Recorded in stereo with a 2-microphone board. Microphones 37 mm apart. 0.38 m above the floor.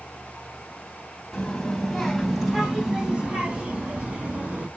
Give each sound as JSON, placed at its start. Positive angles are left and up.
{"t": 1.3, "sound": "a child speaking", "side_deg": 15, "distance_m": 2.0}